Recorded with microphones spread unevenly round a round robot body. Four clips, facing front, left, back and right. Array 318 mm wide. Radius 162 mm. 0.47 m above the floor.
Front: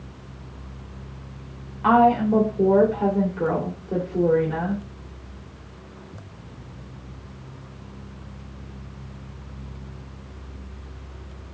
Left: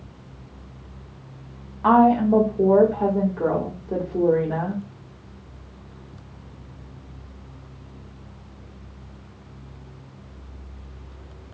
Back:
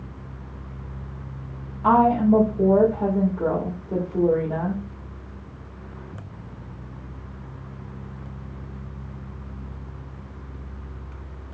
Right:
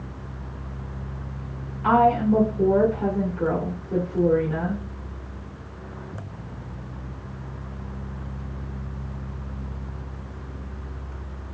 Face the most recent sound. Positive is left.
turn(degrees=70)